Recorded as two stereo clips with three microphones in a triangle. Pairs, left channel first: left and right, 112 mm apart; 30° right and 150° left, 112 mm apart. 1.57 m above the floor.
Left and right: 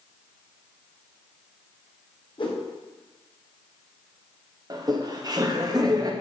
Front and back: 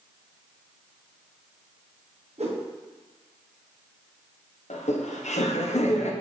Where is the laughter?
35° right, 1.0 m.